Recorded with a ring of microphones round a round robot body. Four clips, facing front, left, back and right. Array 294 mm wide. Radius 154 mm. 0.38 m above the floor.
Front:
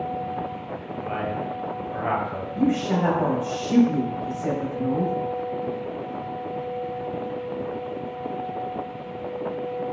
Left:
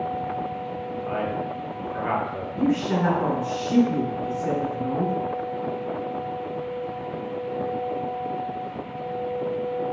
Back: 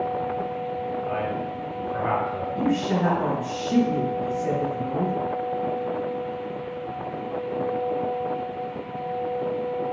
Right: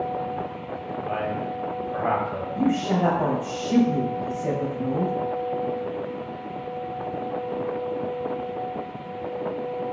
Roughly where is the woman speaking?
Right.